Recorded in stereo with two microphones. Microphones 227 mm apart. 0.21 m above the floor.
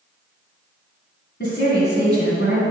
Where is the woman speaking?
45° left (ahead or behind), 1.8 m.